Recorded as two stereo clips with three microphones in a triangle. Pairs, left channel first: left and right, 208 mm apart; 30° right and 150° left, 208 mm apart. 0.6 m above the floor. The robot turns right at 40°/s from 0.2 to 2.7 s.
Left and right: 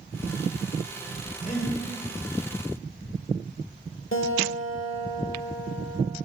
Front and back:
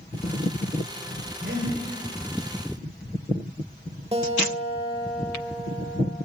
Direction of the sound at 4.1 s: 90° left.